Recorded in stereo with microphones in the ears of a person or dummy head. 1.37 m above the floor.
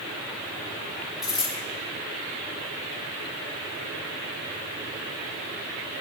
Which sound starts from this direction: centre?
A dropped coin, at 1.2 s.